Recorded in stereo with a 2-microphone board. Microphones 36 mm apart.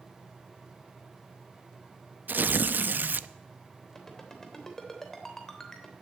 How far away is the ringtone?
About 3 m.